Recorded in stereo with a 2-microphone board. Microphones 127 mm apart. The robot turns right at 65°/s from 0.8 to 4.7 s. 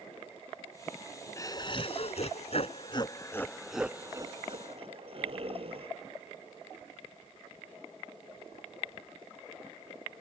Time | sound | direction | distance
1.4 | laughter | 30° left | ?